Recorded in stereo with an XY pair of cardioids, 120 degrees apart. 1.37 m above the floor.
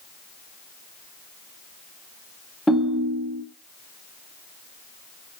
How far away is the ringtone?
About 1.0 m.